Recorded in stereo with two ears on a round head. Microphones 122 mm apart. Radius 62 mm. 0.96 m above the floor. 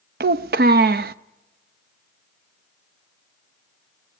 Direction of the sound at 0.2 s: 80° right.